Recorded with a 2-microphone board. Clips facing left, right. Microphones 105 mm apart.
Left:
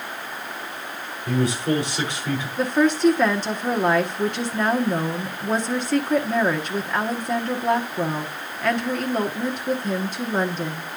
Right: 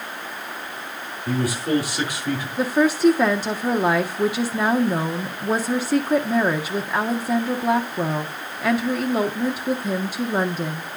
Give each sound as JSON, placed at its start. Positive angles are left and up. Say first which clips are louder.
{"t": 1.3, "sound": "a man speaking", "louder": "even", "side_deg": -10, "distance_m": 6.0}
{"t": 2.6, "sound": "a woman speaking", "louder": "right 1 dB", "side_deg": -10, "distance_m": 0.8}